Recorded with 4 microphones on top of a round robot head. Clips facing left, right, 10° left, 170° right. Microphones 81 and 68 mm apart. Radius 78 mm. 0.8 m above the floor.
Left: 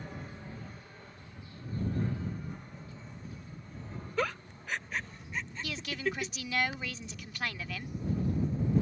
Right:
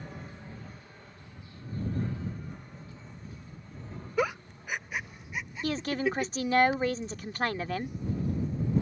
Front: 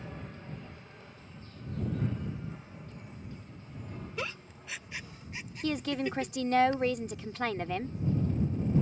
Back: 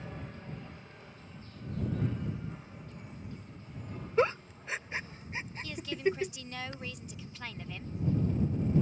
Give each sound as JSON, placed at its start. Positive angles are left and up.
{"t": 4.2, "sound": "a giggle", "azimuth_deg": -160}
{"t": 5.6, "sound": "a woman speaking", "azimuth_deg": -40}